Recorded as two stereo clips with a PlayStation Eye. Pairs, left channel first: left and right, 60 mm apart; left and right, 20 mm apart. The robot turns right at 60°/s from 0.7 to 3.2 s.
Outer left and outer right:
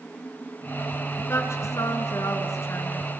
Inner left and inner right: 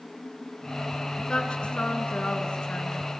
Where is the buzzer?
No buzzer in this recording.